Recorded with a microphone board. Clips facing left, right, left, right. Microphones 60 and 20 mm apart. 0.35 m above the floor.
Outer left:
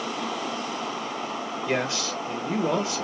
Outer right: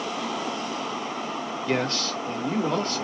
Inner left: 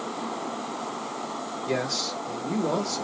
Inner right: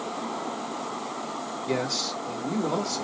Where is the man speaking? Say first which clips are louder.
Outer right 1 dB, even; 10° left (ahead or behind), 0.8 m.